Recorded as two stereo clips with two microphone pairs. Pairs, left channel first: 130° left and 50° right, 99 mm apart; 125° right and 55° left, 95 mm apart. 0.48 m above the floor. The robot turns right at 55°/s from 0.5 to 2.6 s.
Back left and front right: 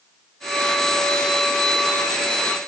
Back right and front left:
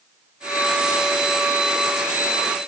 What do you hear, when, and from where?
Only background noise.